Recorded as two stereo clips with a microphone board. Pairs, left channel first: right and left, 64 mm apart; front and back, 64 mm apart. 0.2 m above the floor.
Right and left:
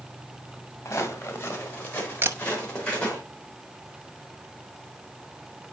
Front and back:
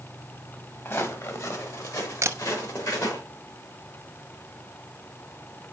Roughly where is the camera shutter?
Behind left.